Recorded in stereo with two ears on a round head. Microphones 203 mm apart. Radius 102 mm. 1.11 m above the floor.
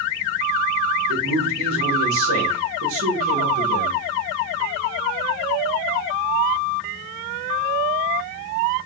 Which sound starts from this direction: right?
A man speaking, at 1.1 s.